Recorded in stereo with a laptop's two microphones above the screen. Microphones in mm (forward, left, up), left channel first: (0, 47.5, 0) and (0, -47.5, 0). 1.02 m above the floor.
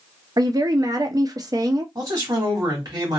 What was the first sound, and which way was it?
A woman speaking, 40° right (ahead or behind).